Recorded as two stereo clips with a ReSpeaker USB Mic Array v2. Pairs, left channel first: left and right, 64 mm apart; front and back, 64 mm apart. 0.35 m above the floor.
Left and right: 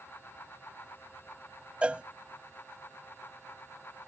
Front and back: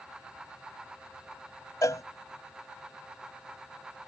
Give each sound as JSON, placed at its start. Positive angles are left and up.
{"t": 1.8, "sound": "a cowbell", "azimuth_deg": -20}